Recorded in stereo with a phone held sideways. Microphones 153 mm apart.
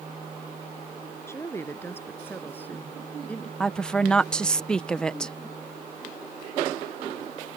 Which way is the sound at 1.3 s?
15° left (ahead or behind).